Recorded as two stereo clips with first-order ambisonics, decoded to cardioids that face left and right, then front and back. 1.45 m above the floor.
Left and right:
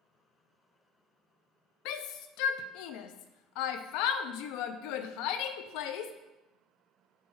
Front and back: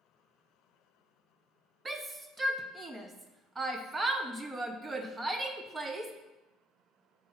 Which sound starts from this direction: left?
A shout, at 1.9 s.